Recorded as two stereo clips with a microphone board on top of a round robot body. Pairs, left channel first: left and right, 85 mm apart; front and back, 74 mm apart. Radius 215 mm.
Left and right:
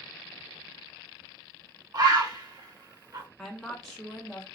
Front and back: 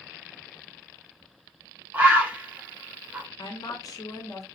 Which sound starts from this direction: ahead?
A woman speaking, at 3.4 s.